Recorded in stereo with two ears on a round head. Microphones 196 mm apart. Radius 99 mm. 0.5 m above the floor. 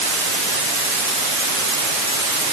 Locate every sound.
Only background noise.